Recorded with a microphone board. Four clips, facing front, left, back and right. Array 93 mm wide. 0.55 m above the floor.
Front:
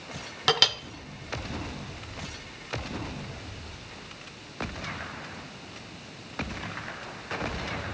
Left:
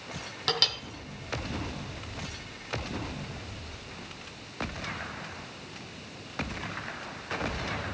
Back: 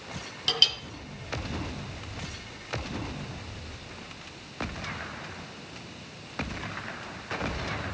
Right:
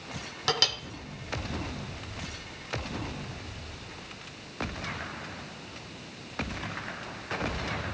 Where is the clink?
10° right, 0.7 m.